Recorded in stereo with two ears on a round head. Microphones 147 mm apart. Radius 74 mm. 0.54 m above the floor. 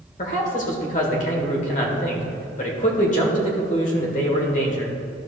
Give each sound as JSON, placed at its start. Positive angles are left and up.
{"t": 0.2, "sound": "a man speaking", "side_deg": 45, "distance_m": 1.6}